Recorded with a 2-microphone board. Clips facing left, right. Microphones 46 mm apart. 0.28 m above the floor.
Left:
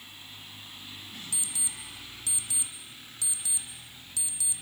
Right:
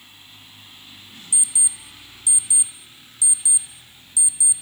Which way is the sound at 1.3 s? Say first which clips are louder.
Right 12 dB; 10° right (ahead or behind).